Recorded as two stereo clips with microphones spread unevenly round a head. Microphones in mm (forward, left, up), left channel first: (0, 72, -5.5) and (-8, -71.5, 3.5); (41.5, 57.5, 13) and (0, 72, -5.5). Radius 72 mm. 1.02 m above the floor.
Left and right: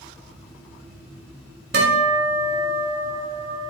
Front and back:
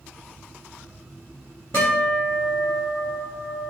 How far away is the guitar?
About 2.5 m.